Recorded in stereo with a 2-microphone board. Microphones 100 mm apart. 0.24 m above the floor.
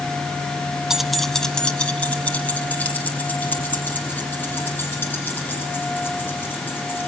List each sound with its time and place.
0.9 s keys jangling: 5° right (ahead or behind), 1.1 m; by 7.0 s 20° left (ahead or behind), 9 m